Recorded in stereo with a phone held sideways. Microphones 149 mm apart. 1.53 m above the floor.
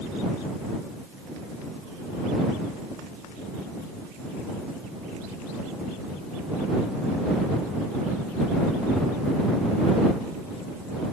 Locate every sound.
Only background noise.